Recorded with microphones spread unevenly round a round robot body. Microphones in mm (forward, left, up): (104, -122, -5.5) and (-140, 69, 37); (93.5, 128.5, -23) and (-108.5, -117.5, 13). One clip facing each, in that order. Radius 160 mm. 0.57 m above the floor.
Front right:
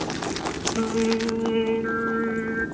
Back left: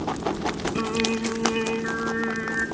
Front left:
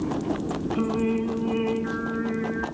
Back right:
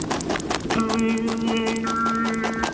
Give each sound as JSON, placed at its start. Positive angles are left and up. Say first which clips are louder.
{"t": 0.8, "sound": "singing", "louder": "front right 5 dB, back right 3 dB", "azimuth_deg": -150, "distance_m": 1.4}